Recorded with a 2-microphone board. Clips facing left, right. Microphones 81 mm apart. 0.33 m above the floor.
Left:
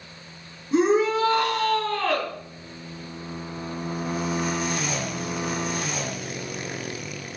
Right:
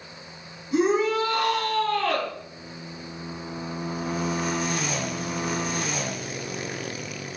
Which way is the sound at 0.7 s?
35° left (ahead or behind).